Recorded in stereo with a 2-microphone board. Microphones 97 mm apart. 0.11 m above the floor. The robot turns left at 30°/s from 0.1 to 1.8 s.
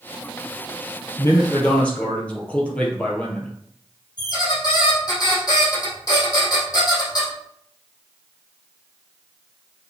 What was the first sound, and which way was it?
A man speaking, 30° left (ahead or behind).